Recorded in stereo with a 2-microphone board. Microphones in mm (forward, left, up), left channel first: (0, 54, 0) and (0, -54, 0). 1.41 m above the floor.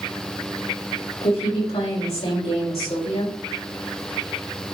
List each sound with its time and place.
1.2 s a woman speaking: 75° left (ahead or behind), 3.5 m; by 3.4 s 70° left (ahead or behind), 5 m